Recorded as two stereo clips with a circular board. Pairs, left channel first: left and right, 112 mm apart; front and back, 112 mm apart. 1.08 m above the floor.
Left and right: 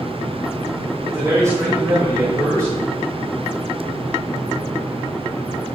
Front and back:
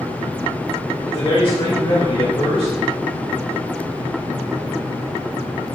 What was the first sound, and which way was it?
A man speaking, 30° right.